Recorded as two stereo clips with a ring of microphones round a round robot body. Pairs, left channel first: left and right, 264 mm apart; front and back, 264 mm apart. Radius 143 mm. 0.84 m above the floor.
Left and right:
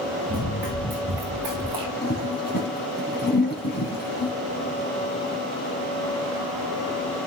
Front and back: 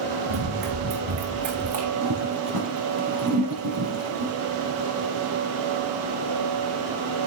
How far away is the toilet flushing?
About 4.5 m.